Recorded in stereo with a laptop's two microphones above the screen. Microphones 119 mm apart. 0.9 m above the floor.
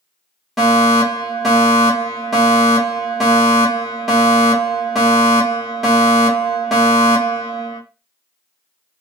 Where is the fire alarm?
Centre (ahead or behind), 1.8 m.